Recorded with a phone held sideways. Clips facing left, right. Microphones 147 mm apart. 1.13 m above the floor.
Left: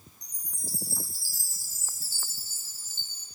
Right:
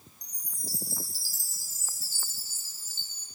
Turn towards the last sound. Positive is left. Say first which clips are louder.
# left 1 dB
turn(degrees=50)  # may be behind; listen again after turning